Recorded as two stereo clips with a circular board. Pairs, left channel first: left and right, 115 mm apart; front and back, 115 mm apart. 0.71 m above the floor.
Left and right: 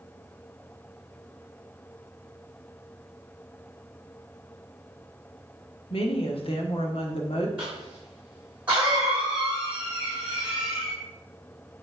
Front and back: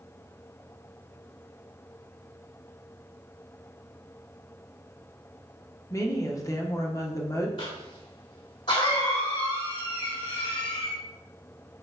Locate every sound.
5.9 s a woman speaking: 60° left, 1.2 m
7.6 s a cough: 15° right, 2 m